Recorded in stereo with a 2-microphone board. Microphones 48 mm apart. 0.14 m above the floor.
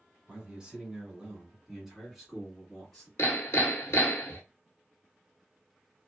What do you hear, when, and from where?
0.3 s a man speaking: 20° right (ahead or behind), 1.5 m; by 3.1 s 5° left (ahead or behind), 1.6 m
3.2 s hammering: 60° left (ahead or behind), 0.8 m